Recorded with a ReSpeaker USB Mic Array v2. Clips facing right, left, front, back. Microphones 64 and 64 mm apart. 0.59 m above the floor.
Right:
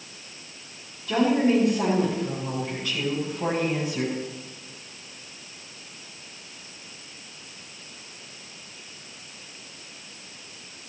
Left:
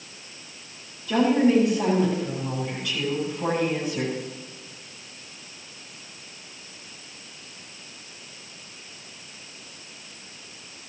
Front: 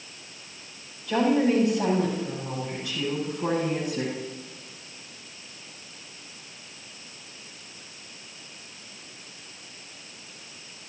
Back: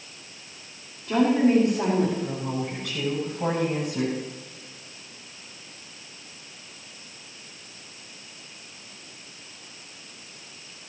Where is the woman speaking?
125° right, 6 m; by 4.2 s 160° right, 6 m.